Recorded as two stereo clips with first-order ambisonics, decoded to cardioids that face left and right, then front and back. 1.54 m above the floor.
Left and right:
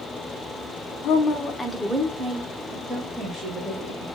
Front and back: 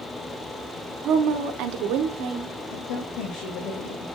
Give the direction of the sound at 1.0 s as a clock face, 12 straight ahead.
8 o'clock.